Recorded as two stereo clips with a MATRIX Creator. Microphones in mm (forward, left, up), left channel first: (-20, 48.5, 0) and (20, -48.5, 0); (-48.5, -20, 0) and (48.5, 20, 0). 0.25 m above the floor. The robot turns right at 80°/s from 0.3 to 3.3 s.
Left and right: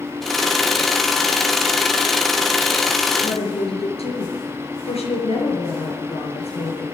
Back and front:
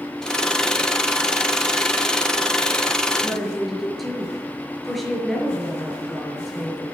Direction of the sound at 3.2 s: 105° left.